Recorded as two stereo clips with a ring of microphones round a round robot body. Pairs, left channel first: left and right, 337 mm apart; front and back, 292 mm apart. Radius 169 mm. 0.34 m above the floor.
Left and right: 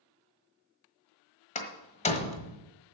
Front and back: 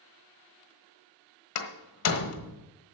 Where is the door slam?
20° left, 1.3 m.